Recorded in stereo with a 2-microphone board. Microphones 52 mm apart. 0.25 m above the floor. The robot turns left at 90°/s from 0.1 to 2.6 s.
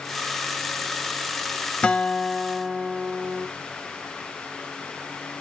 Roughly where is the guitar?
Left.